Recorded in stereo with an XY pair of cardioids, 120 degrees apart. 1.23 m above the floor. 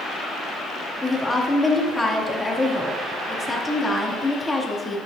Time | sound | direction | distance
1.0 | a woman speaking | 15° left | 2.5 m